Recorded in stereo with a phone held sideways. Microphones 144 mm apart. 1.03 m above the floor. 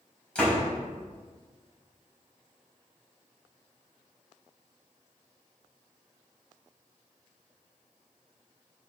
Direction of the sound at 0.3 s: 10° left (ahead or behind).